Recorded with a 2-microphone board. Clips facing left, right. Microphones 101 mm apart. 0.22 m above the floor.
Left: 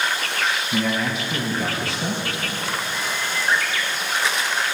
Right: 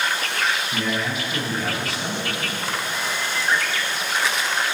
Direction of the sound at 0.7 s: 35° left (ahead or behind).